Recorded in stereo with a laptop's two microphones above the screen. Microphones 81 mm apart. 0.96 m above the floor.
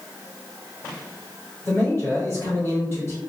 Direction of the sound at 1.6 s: 35° left (ahead or behind).